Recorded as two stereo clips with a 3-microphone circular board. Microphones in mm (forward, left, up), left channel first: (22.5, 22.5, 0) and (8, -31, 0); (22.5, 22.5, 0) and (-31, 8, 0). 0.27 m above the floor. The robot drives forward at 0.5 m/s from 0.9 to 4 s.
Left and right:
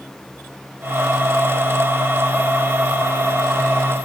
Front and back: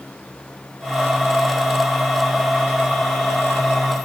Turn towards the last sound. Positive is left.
No sound to turn to.